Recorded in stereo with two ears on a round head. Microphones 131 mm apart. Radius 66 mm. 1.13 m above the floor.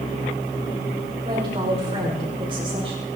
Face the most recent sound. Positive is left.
turn(degrees=-40)  # may be behind; listen again after turning